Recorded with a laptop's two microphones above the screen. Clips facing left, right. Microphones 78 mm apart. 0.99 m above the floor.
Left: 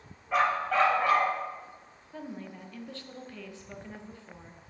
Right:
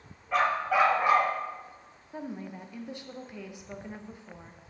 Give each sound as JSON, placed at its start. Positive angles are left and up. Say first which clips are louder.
{"t": 0.3, "sound": "a dog barking", "louder": "even", "side_deg": 0, "distance_m": 1.4}
{"t": 2.1, "sound": "a woman speaking", "louder": "right 3 dB", "side_deg": -20, "distance_m": 0.7}